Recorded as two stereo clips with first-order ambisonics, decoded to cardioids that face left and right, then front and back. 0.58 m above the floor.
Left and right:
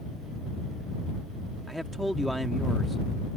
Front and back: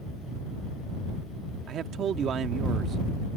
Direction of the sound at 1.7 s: Straight behind.